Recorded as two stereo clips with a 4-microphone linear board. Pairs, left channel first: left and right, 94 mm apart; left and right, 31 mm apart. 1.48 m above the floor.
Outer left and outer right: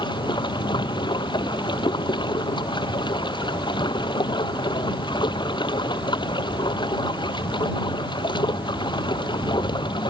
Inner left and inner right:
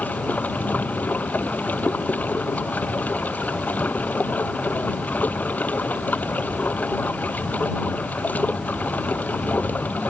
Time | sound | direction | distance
0.0 | running water | 55° left (ahead or behind) | ?